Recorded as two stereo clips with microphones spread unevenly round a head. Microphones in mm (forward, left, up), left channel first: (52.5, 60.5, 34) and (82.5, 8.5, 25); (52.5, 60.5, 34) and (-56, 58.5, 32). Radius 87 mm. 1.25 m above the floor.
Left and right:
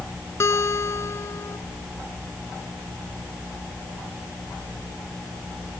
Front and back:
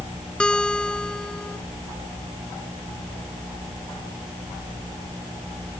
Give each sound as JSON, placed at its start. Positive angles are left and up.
{"t": 0.4, "sound": "a guitar", "azimuth_deg": 85}